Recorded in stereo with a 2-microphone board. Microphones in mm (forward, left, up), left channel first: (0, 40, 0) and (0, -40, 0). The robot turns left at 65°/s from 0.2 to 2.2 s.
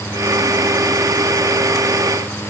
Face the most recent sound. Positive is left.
No sound to turn to.